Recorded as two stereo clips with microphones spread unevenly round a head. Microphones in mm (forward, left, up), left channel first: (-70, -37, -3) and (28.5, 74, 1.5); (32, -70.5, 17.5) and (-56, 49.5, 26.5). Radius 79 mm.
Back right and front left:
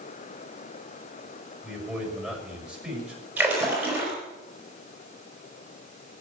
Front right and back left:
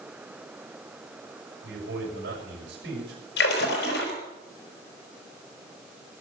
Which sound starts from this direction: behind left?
A man speaking, at 1.6 s.